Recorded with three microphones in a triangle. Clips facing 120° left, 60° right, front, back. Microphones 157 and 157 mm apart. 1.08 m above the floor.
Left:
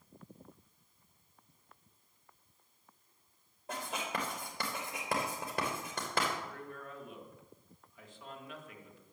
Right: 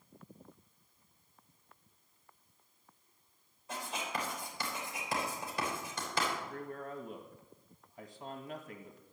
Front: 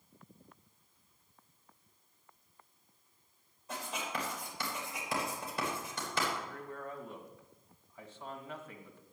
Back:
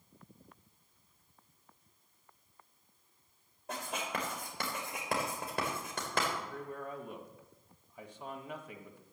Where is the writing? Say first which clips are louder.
Left 1 dB, back 1 dB; 150° left, 3.5 m.